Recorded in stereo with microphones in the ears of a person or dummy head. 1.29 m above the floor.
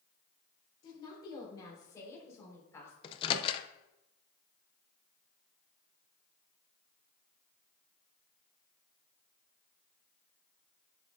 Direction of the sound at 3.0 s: 30° left (ahead or behind).